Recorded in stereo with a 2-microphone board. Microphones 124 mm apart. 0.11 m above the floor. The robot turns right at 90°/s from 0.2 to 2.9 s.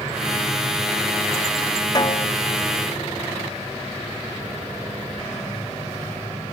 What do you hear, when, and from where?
1.9 s a snare drum: 30° left; by 2.3 s 65° left